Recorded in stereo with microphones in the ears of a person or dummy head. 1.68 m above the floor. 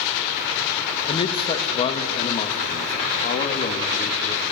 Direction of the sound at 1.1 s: 25° left (ahead or behind).